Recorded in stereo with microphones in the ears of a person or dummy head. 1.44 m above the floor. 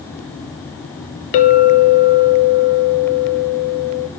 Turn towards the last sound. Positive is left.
turn(degrees=45)  # may be behind; listen again after turning